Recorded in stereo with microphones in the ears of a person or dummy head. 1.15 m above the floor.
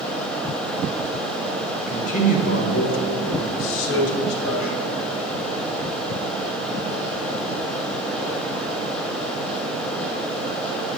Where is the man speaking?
25° left (ahead or behind), 1.3 m; by 4.9 s 50° left (ahead or behind), 1.6 m.